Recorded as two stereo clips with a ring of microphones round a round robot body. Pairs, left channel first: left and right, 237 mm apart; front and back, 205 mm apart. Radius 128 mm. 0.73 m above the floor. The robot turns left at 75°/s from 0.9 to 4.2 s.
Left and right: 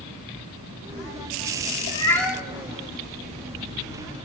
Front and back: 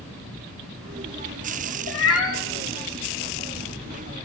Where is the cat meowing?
30° left, 0.8 m; by 2.4 s 10° right, 0.8 m.